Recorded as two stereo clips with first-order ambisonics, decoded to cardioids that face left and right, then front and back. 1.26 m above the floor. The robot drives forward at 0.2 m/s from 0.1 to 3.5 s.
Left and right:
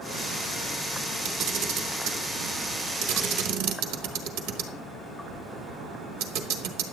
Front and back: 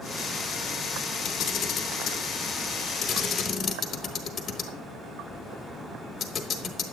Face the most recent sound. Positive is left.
turn(degrees=-75)